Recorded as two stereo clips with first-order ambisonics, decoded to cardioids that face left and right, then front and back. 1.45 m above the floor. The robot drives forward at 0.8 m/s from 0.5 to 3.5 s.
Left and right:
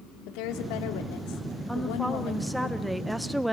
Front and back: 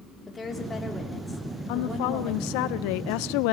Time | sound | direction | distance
0.3 | a woman speaking | 75° left | 3.5 m
1.7 | a woman speaking | straight ahead | 2.0 m